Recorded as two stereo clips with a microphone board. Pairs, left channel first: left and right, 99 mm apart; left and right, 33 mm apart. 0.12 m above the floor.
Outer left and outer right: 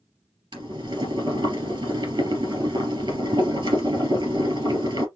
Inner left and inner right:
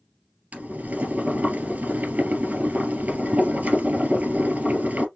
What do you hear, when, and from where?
0.5 s boiling: 55° right (ahead or behind), 3 m